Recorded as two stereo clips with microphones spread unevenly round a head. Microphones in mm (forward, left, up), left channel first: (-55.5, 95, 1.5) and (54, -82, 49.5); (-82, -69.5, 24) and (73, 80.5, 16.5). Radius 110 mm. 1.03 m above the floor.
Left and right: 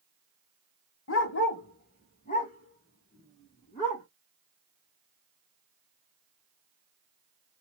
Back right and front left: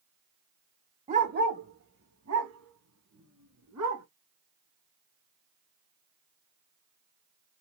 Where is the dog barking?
100° left, 0.9 m; by 4.0 s 55° left, 3.5 m.